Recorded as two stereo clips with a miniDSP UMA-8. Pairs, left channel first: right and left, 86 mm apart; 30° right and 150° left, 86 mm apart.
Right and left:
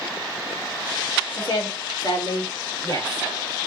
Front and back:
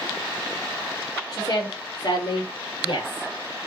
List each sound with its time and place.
1.3 s a woman speaking: 70° right, 5.5 m; by 3.3 s 45° right, 4 m